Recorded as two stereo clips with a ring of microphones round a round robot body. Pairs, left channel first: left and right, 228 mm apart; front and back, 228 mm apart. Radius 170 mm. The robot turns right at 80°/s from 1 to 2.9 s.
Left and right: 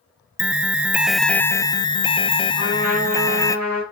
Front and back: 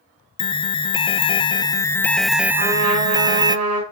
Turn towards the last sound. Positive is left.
turn(degrees=175)